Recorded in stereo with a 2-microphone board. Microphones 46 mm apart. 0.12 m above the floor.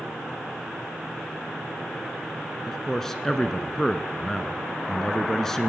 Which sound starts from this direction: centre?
A man speaking, at 2.7 s.